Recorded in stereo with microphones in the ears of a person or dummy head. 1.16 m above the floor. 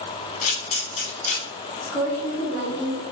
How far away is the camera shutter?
About 1.3 m.